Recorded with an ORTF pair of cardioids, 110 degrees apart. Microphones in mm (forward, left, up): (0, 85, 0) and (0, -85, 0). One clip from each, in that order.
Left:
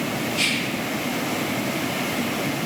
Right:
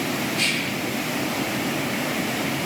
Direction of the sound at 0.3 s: 55° left.